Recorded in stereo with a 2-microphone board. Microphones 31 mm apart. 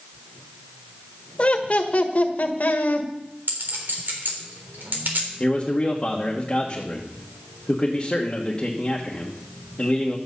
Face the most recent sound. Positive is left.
turn(degrees=15)  # may be behind; listen again after turning